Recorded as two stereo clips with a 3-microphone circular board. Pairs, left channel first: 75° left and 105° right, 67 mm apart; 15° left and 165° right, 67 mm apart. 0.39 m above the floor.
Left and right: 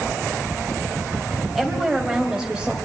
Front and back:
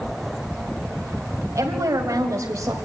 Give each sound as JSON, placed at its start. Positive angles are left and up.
{"t": 1.6, "sound": "a woman speaking", "azimuth_deg": 165, "distance_m": 2.5}